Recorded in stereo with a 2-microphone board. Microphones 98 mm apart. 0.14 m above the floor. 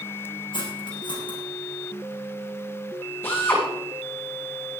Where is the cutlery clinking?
55° left (ahead or behind), 4.5 m.